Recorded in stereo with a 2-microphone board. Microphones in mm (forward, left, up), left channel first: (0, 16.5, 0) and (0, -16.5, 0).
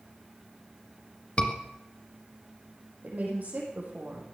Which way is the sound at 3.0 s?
55° right (ahead or behind).